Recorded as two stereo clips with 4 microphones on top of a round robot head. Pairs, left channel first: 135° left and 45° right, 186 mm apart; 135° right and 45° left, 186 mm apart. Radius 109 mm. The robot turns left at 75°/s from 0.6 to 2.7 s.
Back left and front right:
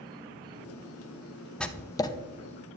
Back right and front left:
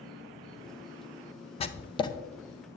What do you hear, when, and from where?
0.0 s an insect: 50° right, 3.5 m; by 2.8 s 155° left, 3.5 m
1.6 s writing: 145° right, 0.6 m; by 2.1 s straight behind, 0.6 m